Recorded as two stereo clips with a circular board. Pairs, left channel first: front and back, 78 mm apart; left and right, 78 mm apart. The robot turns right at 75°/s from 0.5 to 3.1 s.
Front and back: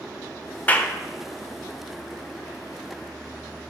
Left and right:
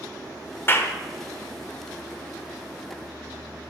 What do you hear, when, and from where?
0.7 s a clap: 55° left, 0.5 m; by 0.9 s 75° left, 0.5 m